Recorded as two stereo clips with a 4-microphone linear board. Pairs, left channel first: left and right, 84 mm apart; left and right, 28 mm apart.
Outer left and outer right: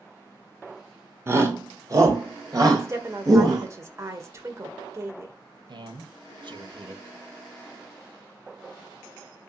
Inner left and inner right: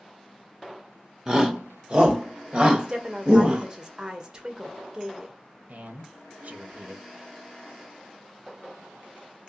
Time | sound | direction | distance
1.3 | a shout | 30° right (ahead or behind) | 1.4 m
2.8 | a woman speaking | 35° right (ahead or behind) | 1.6 m
5.7 | a man speaking | 60° right (ahead or behind) | 1.7 m